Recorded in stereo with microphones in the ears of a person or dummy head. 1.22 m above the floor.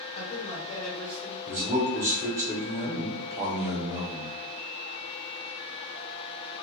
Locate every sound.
0.1 s a man speaking: 40° left (ahead or behind), 1.6 m; by 1.4 s 5° left (ahead or behind), 1.3 m
1.5 s a man speaking: 10° right (ahead or behind), 1.0 m